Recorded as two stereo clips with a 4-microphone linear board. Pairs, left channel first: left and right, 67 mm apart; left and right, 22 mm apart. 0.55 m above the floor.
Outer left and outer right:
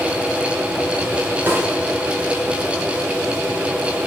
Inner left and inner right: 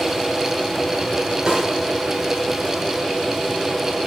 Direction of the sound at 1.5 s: 30° right (ahead or behind).